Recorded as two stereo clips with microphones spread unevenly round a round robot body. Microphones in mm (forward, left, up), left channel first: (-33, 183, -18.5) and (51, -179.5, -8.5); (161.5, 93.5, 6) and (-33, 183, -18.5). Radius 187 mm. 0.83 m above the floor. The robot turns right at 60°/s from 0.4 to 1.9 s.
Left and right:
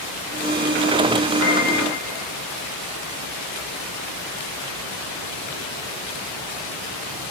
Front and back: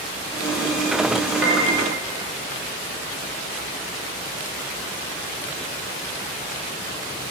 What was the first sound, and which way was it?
A piano, 140° left.